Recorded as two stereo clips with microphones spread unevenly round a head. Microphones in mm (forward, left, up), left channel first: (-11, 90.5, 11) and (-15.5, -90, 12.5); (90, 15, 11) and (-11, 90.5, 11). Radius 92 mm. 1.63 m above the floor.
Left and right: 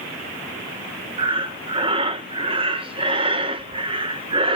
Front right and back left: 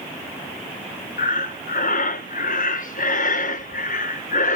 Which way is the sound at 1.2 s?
30° right.